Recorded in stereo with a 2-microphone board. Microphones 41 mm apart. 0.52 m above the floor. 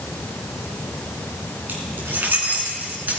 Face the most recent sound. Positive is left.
turn(degrees=-45)  # may be behind; listen again after turning